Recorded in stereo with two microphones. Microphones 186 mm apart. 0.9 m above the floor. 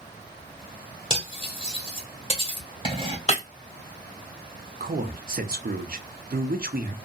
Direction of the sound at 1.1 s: 30° left (ahead or behind).